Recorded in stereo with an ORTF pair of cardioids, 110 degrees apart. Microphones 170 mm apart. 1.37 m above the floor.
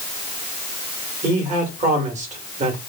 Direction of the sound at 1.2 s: 45° right.